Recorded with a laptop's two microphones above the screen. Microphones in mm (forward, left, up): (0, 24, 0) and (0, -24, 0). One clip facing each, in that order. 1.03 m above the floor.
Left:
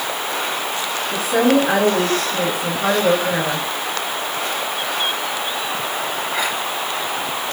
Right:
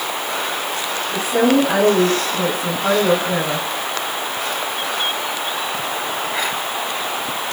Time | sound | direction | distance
1.1 | a woman speaking | 20° left (ahead or behind) | 7 m